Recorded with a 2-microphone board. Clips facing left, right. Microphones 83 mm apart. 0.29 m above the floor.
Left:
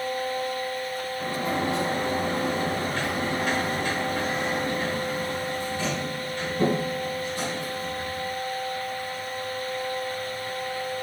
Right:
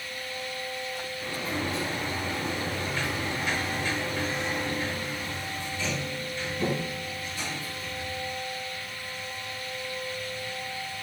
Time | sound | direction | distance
1.2 | a sliding door | 65° left (ahead or behind) | 3 m